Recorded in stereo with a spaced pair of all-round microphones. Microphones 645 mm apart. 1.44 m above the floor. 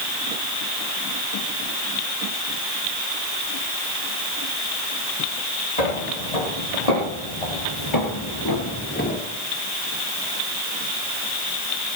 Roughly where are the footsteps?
Left.